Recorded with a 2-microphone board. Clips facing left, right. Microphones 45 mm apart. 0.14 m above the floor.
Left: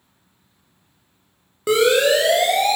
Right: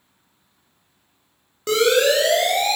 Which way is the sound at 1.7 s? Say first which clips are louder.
Left 1 dB; 10° left (ahead or behind).